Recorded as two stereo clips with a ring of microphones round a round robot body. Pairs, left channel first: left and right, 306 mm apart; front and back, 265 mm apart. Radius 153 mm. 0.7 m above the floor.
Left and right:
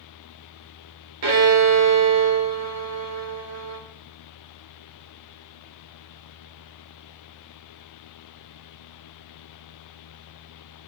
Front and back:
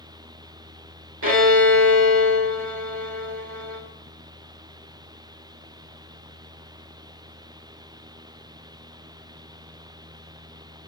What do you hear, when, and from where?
1.2 s a violin: 130° right, 2.5 m